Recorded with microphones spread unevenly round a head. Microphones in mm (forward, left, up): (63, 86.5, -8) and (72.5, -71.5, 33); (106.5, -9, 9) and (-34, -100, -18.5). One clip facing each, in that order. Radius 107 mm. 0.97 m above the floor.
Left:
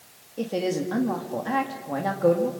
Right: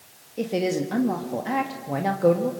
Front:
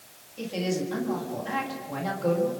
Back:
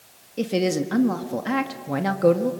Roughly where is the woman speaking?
Behind.